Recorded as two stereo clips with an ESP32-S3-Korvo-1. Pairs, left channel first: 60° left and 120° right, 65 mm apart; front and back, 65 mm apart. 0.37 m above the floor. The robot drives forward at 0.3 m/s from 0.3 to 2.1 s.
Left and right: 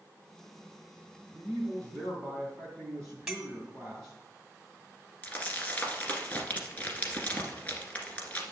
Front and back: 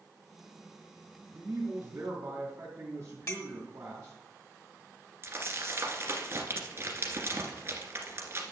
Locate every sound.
1.3 s a man speaking: 130° left, 2.5 m; by 4.2 s 135° left, 2.5 m
3.3 s a clink: 40° right, 1.2 m
5.2 s crumpling: 130° left, 1.6 m